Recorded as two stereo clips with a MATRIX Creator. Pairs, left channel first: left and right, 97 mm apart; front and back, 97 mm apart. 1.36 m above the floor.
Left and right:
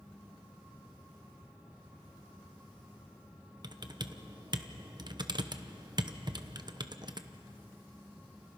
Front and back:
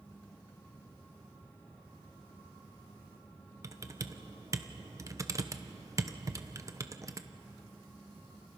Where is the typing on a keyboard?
125° right, 0.9 m.